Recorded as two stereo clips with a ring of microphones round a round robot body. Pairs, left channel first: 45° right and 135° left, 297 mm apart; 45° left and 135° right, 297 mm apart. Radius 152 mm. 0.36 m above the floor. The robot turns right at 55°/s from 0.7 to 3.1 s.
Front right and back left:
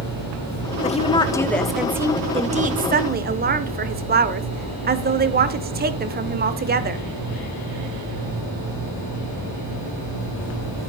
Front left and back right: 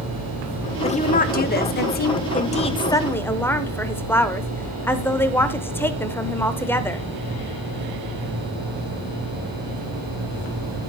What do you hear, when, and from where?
0.8 s a woman speaking: 5° right, 1.0 m; by 7.0 s 120° left, 1.0 m